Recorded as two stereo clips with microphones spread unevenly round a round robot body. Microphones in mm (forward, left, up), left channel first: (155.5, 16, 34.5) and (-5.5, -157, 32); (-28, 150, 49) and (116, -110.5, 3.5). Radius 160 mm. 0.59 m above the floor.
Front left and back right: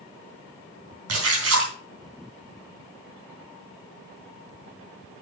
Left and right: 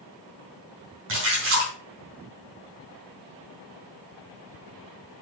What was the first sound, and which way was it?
A splash, 115° right.